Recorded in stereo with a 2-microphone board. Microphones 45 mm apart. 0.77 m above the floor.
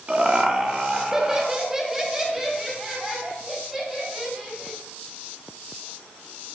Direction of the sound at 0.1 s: 25° right (ahead or behind).